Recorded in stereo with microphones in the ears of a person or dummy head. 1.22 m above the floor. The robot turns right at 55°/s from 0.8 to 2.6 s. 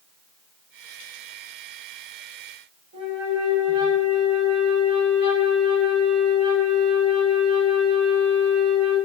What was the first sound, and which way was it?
A flute, 30° right (ahead or behind).